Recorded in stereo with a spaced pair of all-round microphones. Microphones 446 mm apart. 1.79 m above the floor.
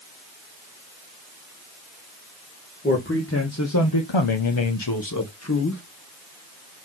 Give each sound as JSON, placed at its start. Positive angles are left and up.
{"t": 2.8, "sound": "a man speaking", "side_deg": 20, "distance_m": 2.5}